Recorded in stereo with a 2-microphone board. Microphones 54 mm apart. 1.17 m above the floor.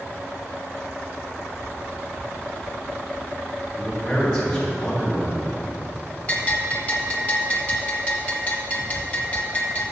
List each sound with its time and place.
3.8 s a man speaking: 15° left (ahead or behind), 2 m; by 6.2 s 5° left (ahead or behind), 3.5 m
6.3 s a bell: 25° left (ahead or behind), 1.5 m